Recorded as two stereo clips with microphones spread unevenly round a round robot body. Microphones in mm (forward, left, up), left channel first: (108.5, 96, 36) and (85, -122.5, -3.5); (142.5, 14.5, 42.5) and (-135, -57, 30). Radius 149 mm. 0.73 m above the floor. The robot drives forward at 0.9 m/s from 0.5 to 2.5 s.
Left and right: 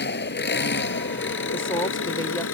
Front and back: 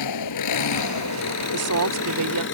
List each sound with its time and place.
0.0 s an engine running: 45° left; by 2.5 s 65° left
1.5 s a woman speaking: 160° left; by 2.4 s 165° left